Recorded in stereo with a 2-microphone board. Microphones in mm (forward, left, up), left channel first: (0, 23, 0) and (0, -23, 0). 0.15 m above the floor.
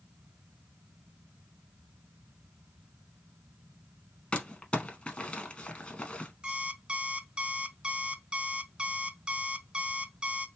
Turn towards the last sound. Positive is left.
turn(degrees=-20)  # may be behind; listen again after turning